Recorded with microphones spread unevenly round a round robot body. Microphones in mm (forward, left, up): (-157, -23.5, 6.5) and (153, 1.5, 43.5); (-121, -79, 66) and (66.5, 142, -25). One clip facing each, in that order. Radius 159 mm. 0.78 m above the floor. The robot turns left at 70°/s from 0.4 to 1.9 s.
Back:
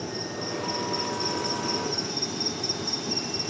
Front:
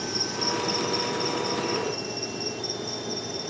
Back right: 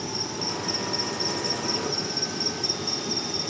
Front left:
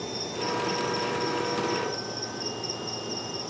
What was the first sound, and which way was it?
An insect, 65° right.